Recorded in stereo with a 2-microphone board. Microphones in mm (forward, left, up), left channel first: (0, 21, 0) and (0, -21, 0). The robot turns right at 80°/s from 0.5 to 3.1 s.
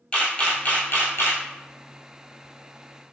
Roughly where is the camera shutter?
Left.